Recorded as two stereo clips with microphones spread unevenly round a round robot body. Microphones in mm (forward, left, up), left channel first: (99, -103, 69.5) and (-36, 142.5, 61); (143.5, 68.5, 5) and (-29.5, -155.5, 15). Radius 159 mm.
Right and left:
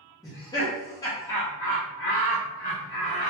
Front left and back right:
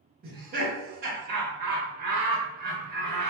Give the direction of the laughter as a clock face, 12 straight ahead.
4 o'clock.